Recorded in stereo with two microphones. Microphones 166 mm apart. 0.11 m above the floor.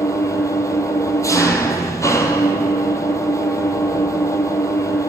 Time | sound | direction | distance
0.0 | an engine running | 20° left (ahead or behind) | 1.8 m